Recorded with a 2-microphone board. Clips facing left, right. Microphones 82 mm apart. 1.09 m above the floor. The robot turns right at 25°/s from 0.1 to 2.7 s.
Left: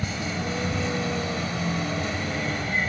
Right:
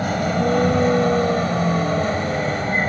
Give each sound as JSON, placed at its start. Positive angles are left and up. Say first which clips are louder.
{"t": 0.0, "sound": "a vehicle", "louder": "right 10 dB", "side_deg": -55}